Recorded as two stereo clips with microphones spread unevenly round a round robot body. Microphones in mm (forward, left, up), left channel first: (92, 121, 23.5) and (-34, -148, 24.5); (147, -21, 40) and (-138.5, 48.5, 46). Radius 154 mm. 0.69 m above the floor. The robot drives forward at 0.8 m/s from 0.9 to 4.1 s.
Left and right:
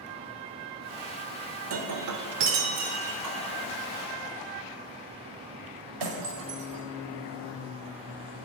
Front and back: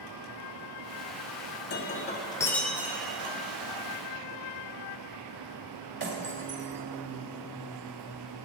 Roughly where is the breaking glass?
Right.